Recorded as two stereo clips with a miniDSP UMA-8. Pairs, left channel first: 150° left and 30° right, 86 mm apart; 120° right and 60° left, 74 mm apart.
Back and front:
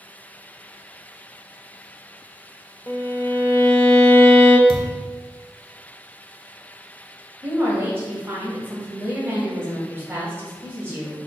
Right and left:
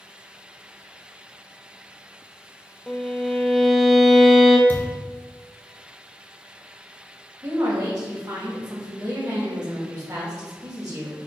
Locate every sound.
2.9 s a violin: 150° left, 0.6 m
4.7 s a thud: 60° right, 1.0 m
7.4 s a woman speaking: 30° left, 1.7 m